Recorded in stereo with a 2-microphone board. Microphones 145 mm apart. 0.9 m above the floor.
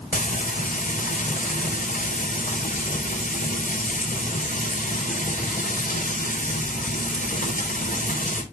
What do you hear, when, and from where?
0.1 s frying: 60° left (ahead or behind), 3 m